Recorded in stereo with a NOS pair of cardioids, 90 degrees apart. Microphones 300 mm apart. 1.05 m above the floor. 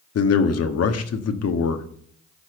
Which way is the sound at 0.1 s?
55° left.